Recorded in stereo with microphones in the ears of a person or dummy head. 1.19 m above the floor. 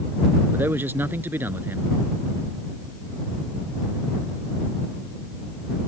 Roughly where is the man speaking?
Centre.